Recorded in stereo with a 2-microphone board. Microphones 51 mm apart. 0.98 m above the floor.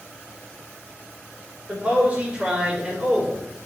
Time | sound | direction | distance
1.7 | a man speaking | 30° right (ahead or behind) | 4.5 m